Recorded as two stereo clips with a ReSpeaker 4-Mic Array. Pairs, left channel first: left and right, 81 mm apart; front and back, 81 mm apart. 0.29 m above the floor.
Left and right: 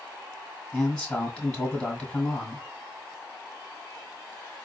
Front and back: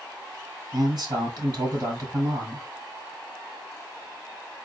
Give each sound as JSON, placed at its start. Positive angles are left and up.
{"t": 0.7, "sound": "a man speaking", "azimuth_deg": 170, "distance_m": 1.9}